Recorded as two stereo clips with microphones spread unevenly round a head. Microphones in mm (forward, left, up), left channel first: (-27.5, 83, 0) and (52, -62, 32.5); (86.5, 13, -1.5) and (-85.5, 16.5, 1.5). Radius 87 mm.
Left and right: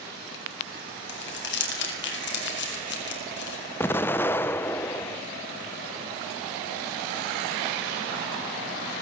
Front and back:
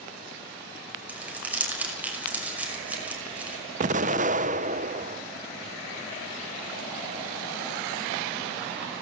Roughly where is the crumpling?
Left.